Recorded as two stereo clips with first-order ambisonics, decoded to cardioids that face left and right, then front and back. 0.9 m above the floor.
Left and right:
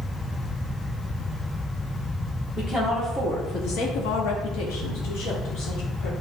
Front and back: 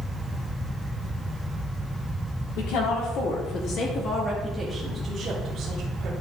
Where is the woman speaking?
10° left, 2 m; by 6.1 s 125° left, 3 m.